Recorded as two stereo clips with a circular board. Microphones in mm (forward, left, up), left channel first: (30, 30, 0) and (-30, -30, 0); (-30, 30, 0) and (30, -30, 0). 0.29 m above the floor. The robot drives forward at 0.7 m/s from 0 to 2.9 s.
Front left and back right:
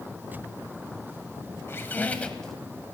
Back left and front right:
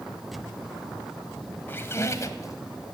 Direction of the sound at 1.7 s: 85° left.